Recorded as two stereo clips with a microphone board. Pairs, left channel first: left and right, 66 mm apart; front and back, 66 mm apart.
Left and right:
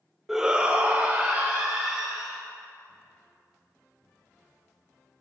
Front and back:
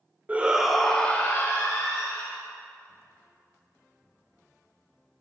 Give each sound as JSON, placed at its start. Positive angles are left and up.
{"t": 0.3, "sound": "a shout", "azimuth_deg": -165, "distance_m": 0.8}